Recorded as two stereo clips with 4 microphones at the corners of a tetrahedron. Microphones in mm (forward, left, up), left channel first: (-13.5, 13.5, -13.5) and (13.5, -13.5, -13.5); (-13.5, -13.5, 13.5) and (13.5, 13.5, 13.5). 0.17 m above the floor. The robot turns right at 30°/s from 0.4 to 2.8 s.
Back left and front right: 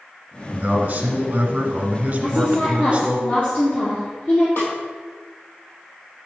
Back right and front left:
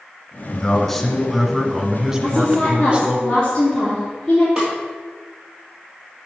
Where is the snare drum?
115° left, 2.5 m.